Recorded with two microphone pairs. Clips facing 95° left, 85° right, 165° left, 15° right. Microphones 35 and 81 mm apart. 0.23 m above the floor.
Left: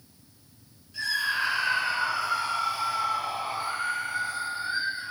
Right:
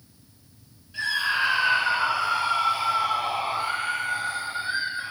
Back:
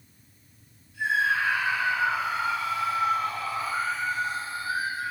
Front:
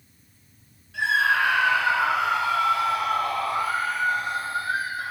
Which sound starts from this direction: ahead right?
A scream, at 0.9 s.